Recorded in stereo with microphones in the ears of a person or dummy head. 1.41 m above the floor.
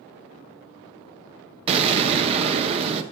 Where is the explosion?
35° right (ahead or behind), 0.6 m.